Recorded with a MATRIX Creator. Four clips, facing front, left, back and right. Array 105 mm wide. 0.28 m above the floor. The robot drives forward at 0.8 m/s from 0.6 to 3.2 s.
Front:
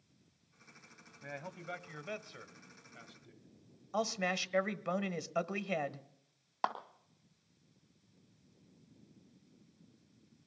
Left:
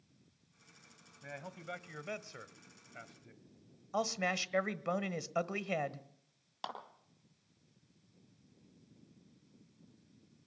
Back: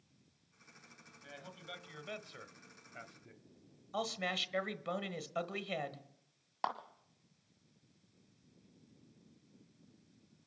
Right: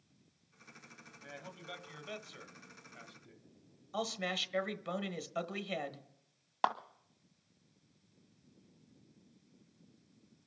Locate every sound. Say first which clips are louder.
1.2 s a man speaking: left 3 dB, front 7 dB; 25° left, 1.4 m; by 3.4 s 145° left, 1.2 m
3.9 s a man speaking: left 3 dB, front 4 dB; 50° left, 1.1 m
6.6 s a clap: right 12 dB, front 2 dB; 80° right, 1.9 m